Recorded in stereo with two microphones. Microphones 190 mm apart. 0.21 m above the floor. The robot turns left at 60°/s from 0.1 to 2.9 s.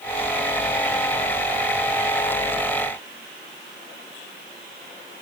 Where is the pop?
No pop in this recording.